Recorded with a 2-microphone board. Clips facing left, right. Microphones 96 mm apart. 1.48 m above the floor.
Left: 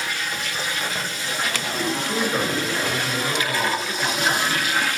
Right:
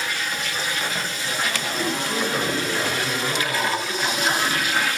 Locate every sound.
1.9 s a man speaking: 10° left (ahead or behind), 8.5 m; by 4.6 s 20° left (ahead or behind), 9.5 m